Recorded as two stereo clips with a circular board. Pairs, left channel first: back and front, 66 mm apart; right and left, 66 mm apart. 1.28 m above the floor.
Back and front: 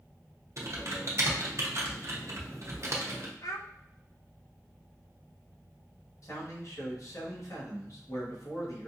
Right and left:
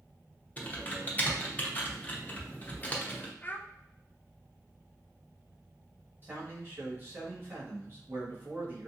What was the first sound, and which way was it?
Typing on a keyboard, 30° right.